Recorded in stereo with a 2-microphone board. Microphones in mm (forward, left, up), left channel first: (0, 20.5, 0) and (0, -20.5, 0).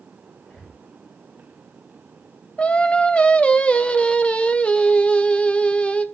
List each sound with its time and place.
0.4 s breathing: 35° left (ahead or behind), 8 m
2.6 s singing: 30° left (ahead or behind), 0.8 m